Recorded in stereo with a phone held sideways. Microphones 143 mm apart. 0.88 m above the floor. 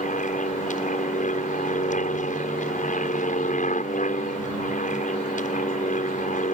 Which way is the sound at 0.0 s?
65° left (ahead or behind).